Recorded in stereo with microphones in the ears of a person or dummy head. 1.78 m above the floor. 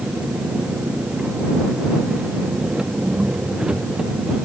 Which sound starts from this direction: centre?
An engine running, at 0.0 s.